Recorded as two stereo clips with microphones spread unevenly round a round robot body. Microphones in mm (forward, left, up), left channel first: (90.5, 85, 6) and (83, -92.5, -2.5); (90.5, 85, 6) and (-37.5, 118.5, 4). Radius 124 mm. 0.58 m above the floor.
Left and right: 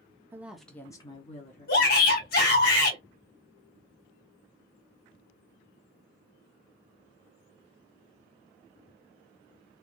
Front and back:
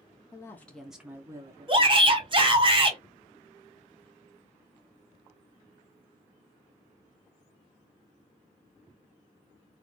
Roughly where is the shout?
Behind left.